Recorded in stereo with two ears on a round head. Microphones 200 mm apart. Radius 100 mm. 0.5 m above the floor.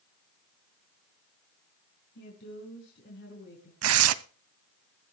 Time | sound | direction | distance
2.1 | a woman speaking | 55° left (ahead or behind) | 5.5 m
3.8 | tearing paper | 70° right (ahead or behind) | 0.7 m